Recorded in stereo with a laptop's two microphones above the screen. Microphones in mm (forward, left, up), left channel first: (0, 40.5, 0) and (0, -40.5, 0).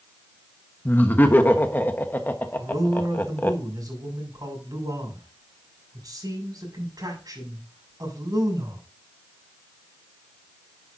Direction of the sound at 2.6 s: 50° right (ahead or behind).